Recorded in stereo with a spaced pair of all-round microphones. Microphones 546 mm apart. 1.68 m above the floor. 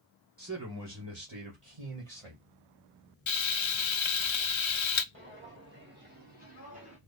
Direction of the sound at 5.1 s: 20° right (ahead or behind).